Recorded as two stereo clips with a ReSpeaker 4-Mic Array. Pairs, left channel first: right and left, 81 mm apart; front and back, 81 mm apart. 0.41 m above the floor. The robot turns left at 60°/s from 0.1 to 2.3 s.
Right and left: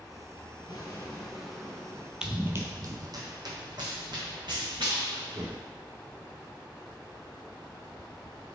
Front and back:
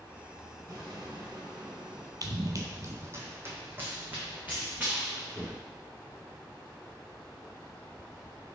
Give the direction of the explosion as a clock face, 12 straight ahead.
4 o'clock.